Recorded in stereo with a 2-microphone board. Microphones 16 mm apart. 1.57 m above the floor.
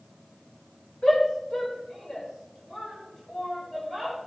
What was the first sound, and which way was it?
A shout, 60° left (ahead or behind).